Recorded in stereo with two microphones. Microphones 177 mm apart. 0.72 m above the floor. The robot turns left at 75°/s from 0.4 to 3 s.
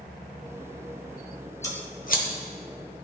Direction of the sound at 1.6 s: 20° left (ahead or behind).